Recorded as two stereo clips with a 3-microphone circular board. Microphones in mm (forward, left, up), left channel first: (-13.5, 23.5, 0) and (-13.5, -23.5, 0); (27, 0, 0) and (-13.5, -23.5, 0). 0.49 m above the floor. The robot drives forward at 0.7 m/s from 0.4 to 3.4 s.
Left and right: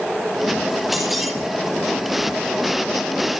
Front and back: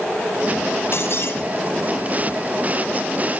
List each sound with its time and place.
0.9 s breaking glass: 5° right, 8 m